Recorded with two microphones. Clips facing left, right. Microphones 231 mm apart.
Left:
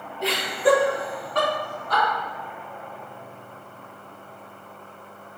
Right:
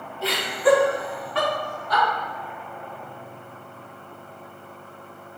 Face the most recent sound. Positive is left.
turn(degrees=55)  # may be behind; listen again after turning